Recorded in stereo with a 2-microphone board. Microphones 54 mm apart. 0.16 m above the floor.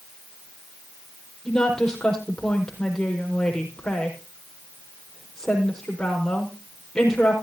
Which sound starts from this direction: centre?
A woman speaking, at 1.4 s.